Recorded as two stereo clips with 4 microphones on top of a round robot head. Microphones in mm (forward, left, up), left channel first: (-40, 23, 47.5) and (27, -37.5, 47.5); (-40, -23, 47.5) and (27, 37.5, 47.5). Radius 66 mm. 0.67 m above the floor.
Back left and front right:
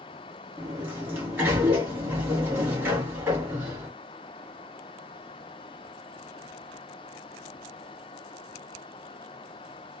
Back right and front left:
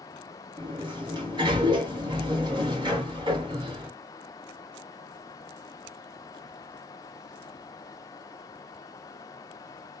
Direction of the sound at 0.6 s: 20° left.